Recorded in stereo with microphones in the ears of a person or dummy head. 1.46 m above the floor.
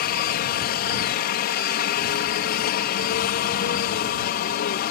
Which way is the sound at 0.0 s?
45° left (ahead or behind).